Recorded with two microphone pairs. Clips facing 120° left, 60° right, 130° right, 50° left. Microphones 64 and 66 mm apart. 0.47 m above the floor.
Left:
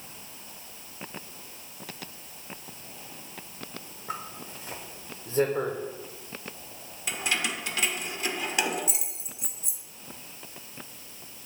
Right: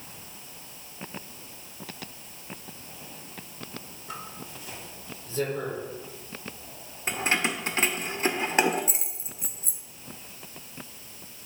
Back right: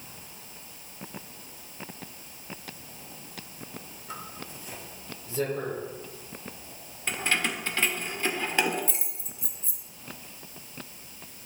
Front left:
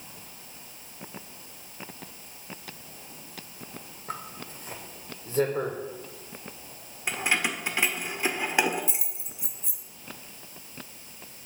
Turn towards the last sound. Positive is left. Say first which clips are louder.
# right 3 dB, front left 1 dB
turn(degrees=-20)